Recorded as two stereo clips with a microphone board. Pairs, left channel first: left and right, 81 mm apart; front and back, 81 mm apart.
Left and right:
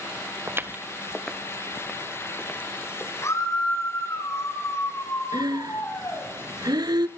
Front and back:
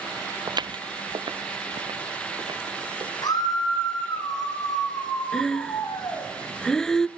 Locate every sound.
0.5 s footsteps: 145° right, 0.8 m; by 3.1 s 155° left, 4 m
3.2 s a scream: 35° left, 6 m
5.3 s breathing: 80° right, 0.6 m